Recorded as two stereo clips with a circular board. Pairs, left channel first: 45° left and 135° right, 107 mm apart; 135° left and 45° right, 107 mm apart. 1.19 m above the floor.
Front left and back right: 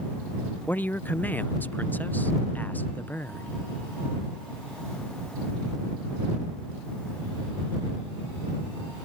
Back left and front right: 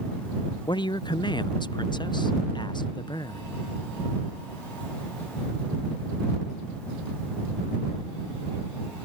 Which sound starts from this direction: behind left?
A woman speaking, at 0.7 s.